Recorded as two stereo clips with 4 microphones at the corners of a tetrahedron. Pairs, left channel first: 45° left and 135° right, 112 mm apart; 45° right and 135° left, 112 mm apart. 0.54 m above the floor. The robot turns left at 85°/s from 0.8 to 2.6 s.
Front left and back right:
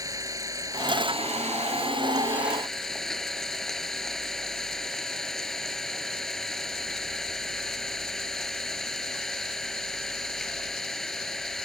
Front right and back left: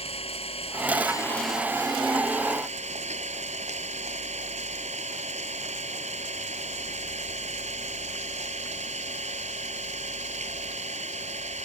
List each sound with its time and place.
0.0 s an engine running: 75° right; by 11.7 s 130° left